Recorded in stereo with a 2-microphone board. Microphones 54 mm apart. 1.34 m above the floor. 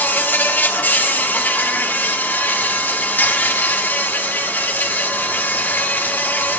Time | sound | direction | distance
0.0 | an insect | 35° left (ahead or behind) | 1.0 m